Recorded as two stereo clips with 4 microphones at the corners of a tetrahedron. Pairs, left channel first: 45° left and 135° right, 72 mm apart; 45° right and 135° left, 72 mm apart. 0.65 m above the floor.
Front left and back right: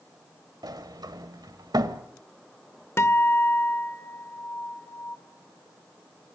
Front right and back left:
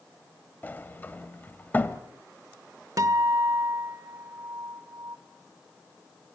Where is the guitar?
100° left, 1.6 m.